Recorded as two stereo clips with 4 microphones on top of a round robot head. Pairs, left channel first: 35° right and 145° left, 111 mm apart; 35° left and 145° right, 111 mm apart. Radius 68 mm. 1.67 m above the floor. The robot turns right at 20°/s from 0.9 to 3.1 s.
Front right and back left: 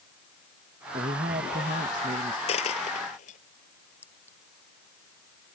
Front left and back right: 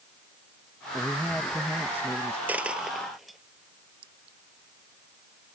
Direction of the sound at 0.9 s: 120° left.